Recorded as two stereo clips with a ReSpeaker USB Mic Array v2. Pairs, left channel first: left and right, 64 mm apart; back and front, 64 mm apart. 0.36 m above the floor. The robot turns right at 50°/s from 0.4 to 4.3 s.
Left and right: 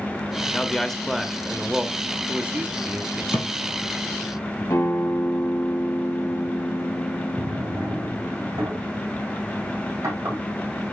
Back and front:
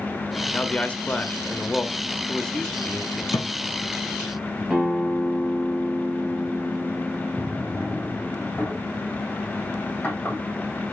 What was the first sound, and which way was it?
A man speaking, 145° left.